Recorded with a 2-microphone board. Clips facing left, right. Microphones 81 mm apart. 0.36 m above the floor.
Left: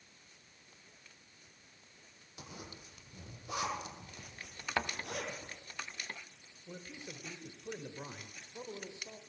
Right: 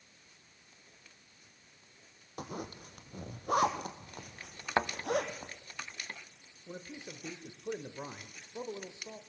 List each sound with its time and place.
2.4 s a zipper: 60° right (ahead or behind), 2.5 m
4.8 s a thud: 30° right (ahead or behind), 0.8 m
6.7 s a man speaking: 25° right (ahead or behind), 1.2 m